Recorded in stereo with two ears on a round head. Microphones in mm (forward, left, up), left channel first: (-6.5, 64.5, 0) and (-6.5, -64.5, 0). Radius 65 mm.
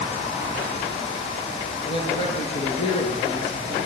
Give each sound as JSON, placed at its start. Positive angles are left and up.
{"t": 1.9, "sound": "a man speaking", "side_deg": 40, "distance_m": 7.5}